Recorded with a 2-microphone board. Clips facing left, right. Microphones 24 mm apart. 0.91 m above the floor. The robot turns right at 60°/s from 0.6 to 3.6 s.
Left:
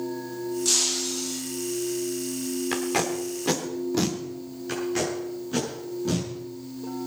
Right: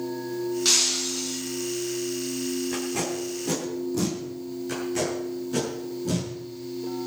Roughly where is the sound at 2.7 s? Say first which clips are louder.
Left 2 dB; left.